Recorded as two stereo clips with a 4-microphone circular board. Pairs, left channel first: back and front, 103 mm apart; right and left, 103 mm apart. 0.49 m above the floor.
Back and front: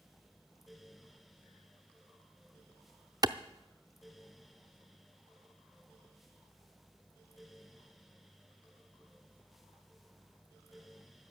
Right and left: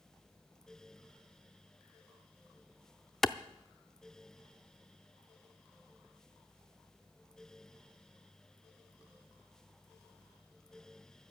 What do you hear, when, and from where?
3.2 s a clap: 5° right, 0.6 m